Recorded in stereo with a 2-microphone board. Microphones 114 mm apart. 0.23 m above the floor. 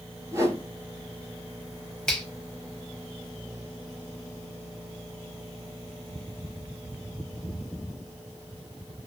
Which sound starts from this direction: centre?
A finger snap, at 2.1 s.